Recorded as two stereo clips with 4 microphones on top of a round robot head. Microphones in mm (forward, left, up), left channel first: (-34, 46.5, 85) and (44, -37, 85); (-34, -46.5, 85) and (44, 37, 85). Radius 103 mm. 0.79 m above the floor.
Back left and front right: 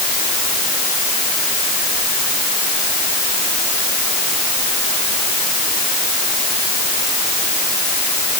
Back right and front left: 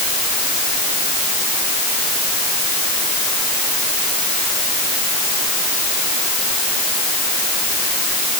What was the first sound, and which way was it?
Only background noise.